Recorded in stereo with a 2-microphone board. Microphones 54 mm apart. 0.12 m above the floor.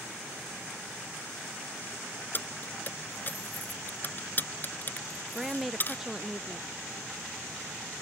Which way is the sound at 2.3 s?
40° left (ahead or behind).